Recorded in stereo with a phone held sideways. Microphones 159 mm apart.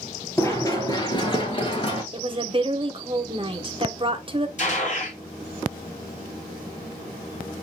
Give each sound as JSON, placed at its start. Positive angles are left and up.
{"t": 0.4, "sound": "running footsteps", "side_deg": 15, "distance_m": 1.7}
{"t": 2.1, "sound": "a woman speaking", "side_deg": -35, "distance_m": 0.9}
{"t": 4.6, "sound": "a gunshot", "side_deg": 50, "distance_m": 2.0}